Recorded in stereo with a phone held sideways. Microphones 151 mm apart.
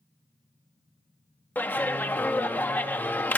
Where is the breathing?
No breathing in this recording.